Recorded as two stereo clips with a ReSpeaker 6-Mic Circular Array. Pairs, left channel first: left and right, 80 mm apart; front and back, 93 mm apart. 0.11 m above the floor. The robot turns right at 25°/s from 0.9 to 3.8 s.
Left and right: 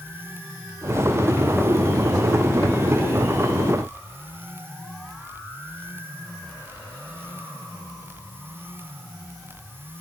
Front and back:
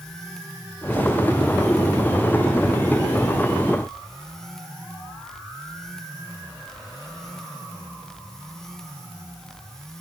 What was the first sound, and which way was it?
Only background noise.